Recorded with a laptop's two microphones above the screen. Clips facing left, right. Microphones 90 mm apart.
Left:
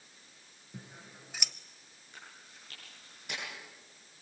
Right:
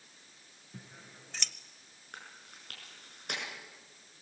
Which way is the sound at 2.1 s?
60° right (ahead or behind).